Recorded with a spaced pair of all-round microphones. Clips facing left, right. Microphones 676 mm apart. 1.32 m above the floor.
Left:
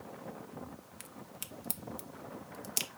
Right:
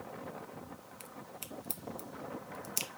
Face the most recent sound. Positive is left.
turn(degrees=50)  # may be behind; listen again after turning